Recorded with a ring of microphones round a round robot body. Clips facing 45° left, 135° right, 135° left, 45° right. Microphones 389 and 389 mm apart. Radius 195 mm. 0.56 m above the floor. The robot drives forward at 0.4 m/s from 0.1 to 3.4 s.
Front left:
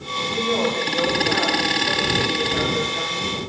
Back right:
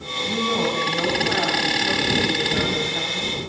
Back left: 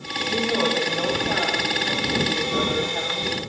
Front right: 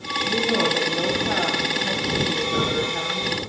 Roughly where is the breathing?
I don't hear breathing.